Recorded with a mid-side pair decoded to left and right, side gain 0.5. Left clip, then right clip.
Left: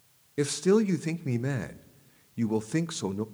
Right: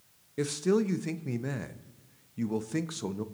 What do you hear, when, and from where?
0.4 s a man speaking: 25° left, 0.6 m